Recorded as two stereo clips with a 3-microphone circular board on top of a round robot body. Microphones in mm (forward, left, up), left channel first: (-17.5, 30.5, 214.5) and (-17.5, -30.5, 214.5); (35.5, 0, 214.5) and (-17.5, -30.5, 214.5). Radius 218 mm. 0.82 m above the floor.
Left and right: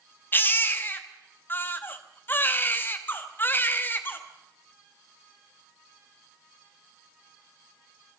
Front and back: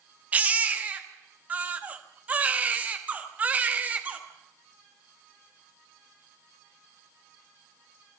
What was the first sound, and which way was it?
A baby crying, 150° left.